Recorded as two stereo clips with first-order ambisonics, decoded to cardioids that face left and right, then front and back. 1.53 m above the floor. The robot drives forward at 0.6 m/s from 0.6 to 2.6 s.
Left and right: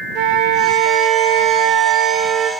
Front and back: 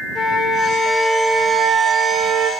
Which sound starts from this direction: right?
A flute, at 0.1 s.